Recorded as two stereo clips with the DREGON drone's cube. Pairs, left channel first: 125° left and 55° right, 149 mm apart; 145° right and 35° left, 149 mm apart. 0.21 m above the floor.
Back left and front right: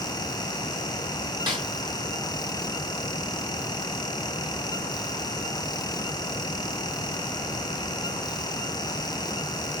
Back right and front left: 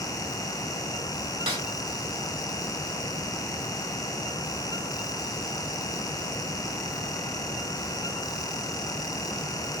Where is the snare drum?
5° right, 1.4 m.